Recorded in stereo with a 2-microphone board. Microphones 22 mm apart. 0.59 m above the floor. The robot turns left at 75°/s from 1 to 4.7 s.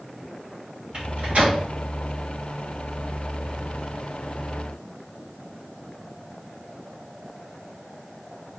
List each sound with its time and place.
0.9 s a microwave: 35° right (ahead or behind), 3 m; by 1.6 s 80° right, 3 m